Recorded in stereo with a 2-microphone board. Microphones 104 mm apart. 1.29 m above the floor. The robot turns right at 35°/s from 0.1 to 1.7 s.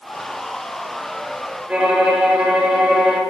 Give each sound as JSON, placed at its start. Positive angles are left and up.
{"t": 1.7, "sound": "a violin", "side_deg": -10, "distance_m": 1.8}